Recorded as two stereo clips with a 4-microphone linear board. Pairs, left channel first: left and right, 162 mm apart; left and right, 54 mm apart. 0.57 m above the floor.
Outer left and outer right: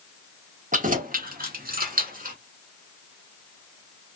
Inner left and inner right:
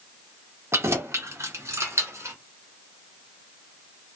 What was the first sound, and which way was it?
Keys jangling, 50° right (ahead or behind).